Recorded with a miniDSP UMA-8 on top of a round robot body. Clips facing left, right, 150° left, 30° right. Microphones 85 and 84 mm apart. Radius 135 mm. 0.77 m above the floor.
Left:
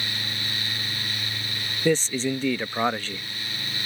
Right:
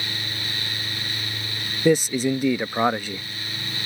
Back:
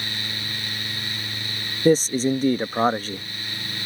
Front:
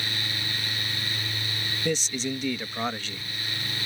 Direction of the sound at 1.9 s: 165° right.